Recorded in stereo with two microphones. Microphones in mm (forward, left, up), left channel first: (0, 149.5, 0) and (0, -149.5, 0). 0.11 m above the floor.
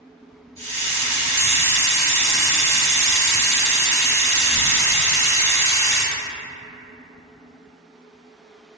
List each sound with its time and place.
0.6 s a hiss: 10° left (ahead or behind), 1.1 m